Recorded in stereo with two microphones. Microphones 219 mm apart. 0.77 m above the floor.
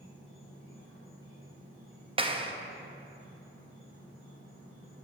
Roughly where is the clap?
Right.